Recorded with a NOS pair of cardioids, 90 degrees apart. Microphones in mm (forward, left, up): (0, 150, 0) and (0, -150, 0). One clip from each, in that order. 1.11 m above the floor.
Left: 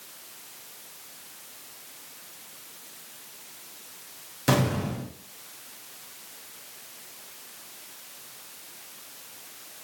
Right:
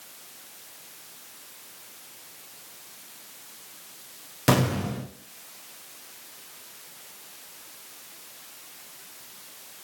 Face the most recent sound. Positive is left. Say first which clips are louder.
# right 1 dB
turn(degrees=-20)